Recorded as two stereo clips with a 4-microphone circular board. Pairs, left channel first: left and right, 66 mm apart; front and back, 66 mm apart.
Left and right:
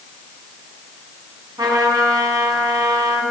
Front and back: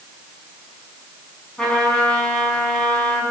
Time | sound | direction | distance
1.6 | a trumpet | 80° right | 4.5 m